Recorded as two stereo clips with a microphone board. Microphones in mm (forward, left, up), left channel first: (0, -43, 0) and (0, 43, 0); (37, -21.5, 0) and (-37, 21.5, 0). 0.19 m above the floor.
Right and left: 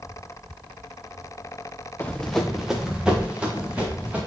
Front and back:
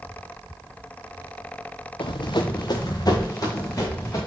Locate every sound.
2.0 s running footsteps: 15° right, 1.0 m; by 4.2 s 20° left, 4 m